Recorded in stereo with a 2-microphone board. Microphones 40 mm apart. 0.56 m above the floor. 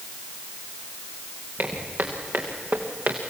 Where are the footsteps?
60° right (ahead or behind), 4 m; by 3.2 s 70° right (ahead or behind), 2.5 m.